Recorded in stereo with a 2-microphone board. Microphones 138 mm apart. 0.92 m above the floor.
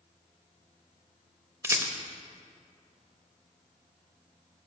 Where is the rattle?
20° right (ahead or behind), 0.7 m.